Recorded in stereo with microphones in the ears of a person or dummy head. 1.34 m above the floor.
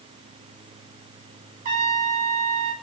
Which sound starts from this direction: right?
A trumpet, at 1.6 s.